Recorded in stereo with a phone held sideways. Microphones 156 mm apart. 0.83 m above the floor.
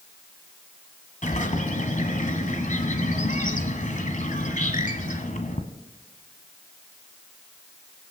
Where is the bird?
55° left (ahead or behind), 1.2 m.